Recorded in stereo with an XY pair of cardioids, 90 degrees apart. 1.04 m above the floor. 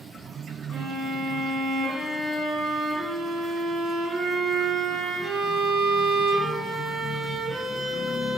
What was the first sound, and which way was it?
A violin, 60° right.